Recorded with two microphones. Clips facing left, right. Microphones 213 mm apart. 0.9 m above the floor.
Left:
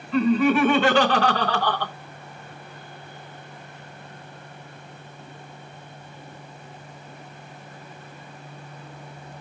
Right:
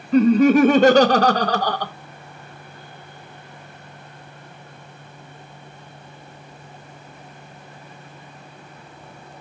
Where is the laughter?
40° right (ahead or behind), 1.0 m.